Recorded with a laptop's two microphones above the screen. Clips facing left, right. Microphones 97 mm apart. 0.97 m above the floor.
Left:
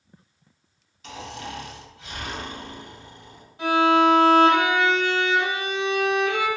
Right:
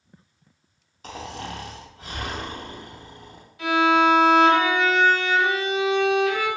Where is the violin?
30° left (ahead or behind), 1.4 m.